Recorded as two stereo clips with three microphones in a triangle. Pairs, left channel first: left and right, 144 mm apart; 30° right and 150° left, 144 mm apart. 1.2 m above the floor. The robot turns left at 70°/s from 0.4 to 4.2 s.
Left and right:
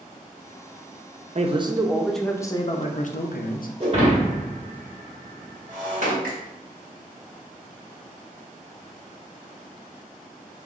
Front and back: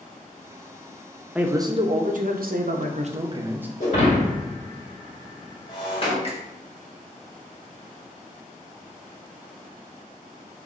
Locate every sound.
1.4 s a man speaking: 125° right, 0.5 m; by 3.7 s 70° left, 0.5 m
3.8 s breaking glass: 45° right, 1.6 m; by 6.1 s 75° right, 1.6 m
6.2 s a finger snap: 80° right, 1.2 m